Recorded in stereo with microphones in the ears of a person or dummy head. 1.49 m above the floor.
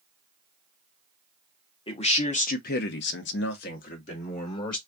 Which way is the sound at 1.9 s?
30° left (ahead or behind).